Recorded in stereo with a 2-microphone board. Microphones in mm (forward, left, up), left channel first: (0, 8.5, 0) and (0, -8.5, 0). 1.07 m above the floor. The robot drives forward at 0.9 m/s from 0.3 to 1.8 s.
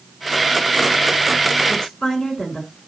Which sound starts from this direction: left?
A woman speaking, at 1.7 s.